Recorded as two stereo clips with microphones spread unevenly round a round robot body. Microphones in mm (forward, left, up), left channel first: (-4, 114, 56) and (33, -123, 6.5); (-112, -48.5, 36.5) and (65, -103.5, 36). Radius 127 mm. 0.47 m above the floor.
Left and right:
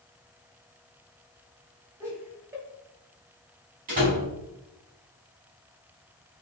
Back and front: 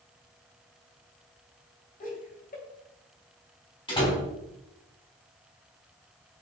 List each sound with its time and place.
2.0 s laughter: 155° right, 3 m
3.9 s a door slam: 135° right, 3.5 m